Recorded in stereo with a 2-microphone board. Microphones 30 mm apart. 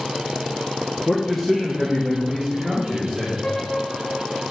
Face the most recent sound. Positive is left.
turn(degrees=40)  # may be behind; listen again after turning